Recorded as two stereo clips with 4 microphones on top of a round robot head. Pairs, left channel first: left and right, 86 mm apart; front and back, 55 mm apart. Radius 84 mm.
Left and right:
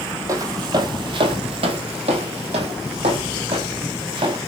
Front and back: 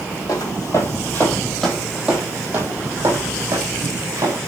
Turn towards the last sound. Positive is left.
turn(degrees=-135)